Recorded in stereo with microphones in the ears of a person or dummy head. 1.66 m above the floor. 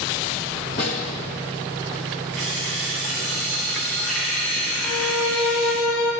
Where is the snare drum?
50° left (ahead or behind), 1.2 m.